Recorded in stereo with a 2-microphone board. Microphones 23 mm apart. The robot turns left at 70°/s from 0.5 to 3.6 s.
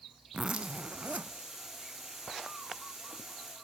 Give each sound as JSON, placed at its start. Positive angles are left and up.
{"t": 0.3, "sound": "a zipper", "azimuth_deg": -45, "distance_m": 0.9}